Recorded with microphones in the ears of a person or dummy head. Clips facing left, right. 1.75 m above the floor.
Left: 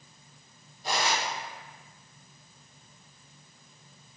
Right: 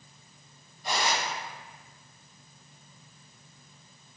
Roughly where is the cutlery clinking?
Left.